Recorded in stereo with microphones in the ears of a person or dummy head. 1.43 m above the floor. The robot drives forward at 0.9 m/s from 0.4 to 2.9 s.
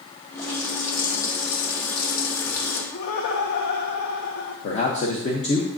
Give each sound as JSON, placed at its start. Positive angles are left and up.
{"t": 0.4, "sound": "a running tap", "side_deg": 40, "distance_m": 2.5}
{"t": 2.9, "sound": "laughter", "side_deg": 65, "distance_m": 0.8}
{"t": 4.6, "sound": "a man speaking", "side_deg": 35, "distance_m": 1.0}